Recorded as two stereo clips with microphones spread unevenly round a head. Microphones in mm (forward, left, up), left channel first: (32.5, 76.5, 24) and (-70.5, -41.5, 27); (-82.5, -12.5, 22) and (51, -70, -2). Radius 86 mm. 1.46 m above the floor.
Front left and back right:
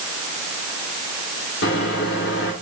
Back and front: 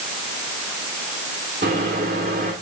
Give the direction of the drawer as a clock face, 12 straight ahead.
No drawer in this recording.